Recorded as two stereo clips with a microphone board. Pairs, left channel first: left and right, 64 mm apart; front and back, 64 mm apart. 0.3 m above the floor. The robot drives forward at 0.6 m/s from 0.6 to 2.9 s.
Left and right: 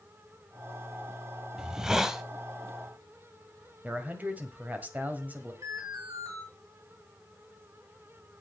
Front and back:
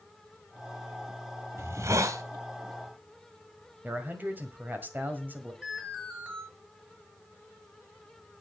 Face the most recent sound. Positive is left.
turn(degrees=-110)